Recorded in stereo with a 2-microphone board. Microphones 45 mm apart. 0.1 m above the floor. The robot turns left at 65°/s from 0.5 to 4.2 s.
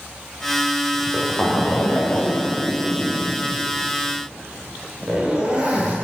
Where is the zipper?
175° right, 7.5 m; by 6.0 s 30° right, 7.5 m.